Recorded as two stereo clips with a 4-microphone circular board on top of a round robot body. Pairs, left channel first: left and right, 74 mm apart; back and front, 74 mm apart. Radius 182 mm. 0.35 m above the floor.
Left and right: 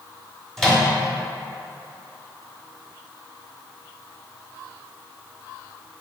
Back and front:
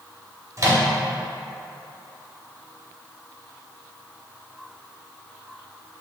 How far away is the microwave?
About 1.5 m.